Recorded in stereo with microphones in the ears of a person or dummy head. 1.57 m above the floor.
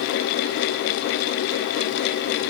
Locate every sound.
Only background noise.